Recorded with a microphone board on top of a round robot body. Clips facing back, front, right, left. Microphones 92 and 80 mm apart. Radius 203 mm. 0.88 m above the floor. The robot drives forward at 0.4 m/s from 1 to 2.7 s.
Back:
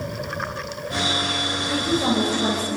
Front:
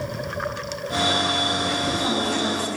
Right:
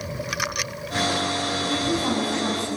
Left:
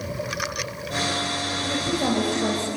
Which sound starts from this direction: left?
A woman speaking, at 1.6 s.